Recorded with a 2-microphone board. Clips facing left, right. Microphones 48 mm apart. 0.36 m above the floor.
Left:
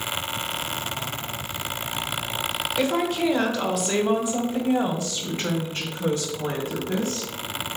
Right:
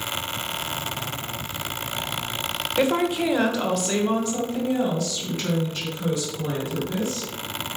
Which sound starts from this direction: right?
A woman speaking, at 2.8 s.